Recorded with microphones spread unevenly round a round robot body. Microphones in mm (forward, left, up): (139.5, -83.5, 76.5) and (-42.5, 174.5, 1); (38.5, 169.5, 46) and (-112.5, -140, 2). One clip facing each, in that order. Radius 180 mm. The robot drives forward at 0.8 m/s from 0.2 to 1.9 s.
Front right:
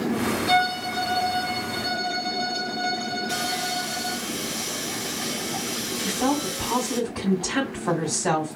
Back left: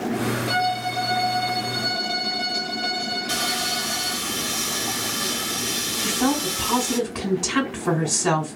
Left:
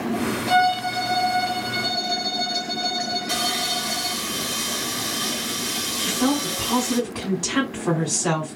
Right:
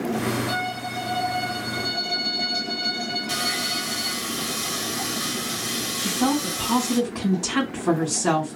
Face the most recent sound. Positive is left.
turn(degrees=160)